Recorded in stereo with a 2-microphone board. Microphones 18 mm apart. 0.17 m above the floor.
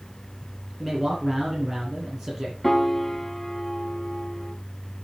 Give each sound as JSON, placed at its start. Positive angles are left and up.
{"t": 0.8, "sound": "a man speaking", "side_deg": -15, "distance_m": 5.0}
{"t": 2.6, "sound": "a piano", "side_deg": 15, "distance_m": 0.8}